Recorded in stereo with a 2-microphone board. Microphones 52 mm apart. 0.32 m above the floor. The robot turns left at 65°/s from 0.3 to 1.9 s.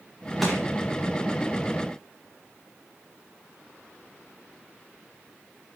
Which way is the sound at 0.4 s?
Centre (ahead or behind).